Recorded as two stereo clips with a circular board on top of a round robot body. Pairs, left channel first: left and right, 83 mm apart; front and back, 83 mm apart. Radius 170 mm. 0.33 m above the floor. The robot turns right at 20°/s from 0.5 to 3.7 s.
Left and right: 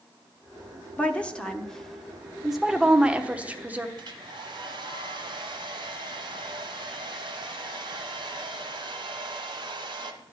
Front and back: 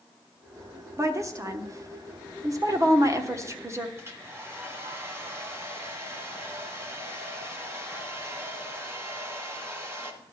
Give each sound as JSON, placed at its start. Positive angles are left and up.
{"t": 1.0, "sound": "a woman speaking", "azimuth_deg": 155, "distance_m": 1.3}
{"t": 4.0, "sound": "a hair dryer", "azimuth_deg": -120, "distance_m": 1.4}